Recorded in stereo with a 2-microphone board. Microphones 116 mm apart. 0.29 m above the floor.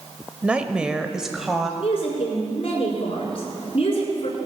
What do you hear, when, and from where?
0.4 s a woman speaking: 10° right (ahead or behind), 0.9 m; by 1.7 s centre (ahead or behind), 1.2 m
1.8 s a woman speaking: 50° left (ahead or behind), 4.5 m